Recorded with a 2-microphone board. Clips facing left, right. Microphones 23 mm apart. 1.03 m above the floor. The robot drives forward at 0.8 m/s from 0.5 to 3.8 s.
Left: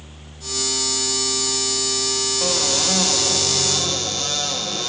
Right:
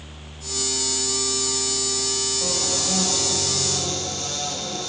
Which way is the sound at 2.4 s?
80° left.